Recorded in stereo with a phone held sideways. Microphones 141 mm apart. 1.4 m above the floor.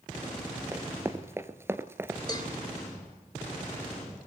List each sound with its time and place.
0.7 s running footsteps: 15° right (ahead or behind), 1.6 m
2.3 s a cowbell: 30° left (ahead or behind), 3.5 m